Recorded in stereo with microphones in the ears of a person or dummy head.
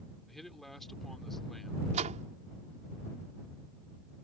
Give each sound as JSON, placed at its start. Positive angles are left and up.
{"t": 0.3, "sound": "a man speaking", "side_deg": 0}
{"t": 1.9, "sound": "a door slam", "side_deg": -40}